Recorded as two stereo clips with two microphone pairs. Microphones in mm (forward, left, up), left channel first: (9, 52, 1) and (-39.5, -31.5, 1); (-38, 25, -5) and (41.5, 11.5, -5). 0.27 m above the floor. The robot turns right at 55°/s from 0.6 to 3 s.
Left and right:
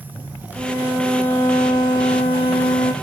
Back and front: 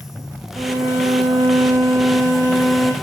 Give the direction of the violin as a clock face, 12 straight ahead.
1 o'clock.